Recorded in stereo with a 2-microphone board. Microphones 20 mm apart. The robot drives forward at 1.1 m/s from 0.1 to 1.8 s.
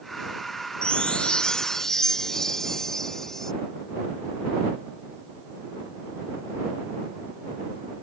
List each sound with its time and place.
0.8 s a chime: 50° left (ahead or behind); by 3.5 s 25° left (ahead or behind)